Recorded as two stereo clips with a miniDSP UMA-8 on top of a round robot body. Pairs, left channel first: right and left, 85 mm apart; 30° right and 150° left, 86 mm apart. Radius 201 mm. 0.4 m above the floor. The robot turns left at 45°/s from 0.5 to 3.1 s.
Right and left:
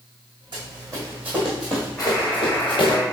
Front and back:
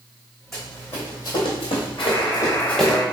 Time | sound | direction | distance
0.5 | running footsteps | 60° left | 2 m
2.0 | a buzzer | 20° right | 2.0 m